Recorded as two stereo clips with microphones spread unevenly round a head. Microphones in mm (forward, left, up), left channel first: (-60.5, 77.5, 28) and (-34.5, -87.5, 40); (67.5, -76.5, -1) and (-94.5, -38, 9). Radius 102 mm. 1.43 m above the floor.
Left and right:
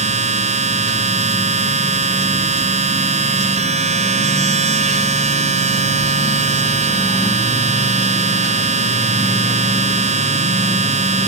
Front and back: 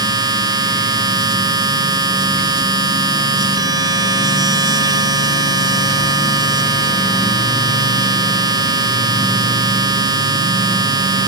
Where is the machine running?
130° right.